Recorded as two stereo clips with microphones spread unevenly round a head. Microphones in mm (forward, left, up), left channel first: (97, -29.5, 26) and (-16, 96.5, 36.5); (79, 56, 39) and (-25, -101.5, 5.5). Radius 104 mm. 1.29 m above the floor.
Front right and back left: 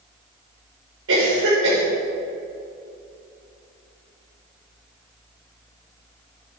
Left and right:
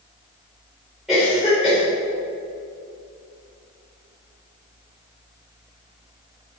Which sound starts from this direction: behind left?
A cough, at 1.1 s.